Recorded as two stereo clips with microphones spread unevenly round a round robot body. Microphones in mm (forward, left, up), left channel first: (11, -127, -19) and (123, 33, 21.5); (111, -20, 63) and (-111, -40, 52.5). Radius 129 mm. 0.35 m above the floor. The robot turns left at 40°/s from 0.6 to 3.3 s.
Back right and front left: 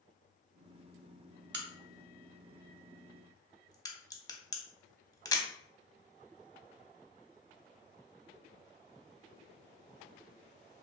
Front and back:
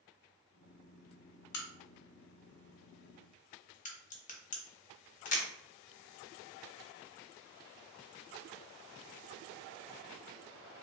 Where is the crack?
20° left, 0.7 m; by 5.4 s 55° right, 0.7 m.